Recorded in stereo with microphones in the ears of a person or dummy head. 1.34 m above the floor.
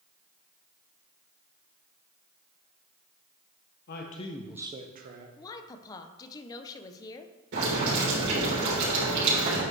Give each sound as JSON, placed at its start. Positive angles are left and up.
{"t": 3.9, "sound": "a man speaking", "side_deg": 60, "distance_m": 0.9}
{"t": 5.4, "sound": "a woman speaking", "side_deg": 20, "distance_m": 0.6}
{"t": 7.5, "sound": "boiling", "side_deg": -65, "distance_m": 3.5}